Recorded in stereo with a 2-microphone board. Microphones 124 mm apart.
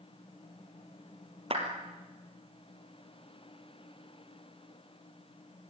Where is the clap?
50° right (ahead or behind), 3 m.